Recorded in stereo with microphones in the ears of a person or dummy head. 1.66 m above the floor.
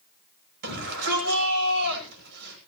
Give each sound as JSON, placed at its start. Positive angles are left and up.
{"t": 0.6, "sound": "a shout", "side_deg": -60, "distance_m": 10.0}